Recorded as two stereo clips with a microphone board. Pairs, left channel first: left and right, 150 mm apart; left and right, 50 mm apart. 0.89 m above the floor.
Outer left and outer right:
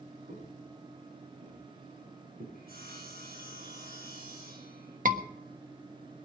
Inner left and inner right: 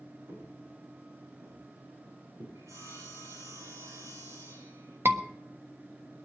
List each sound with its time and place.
0.3 s footsteps: 65° right (ahead or behind), 7 m; by 2.5 s 75° right (ahead or behind), 8 m
2.5 s sawing: 85° right, 9 m
5.0 s a scream: 60° right (ahead or behind), 1.3 m